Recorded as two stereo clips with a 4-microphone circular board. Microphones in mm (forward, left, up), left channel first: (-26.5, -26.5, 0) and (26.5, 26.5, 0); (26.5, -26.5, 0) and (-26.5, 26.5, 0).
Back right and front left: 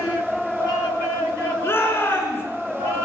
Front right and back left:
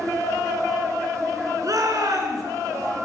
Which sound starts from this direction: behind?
A shout, at 1.6 s.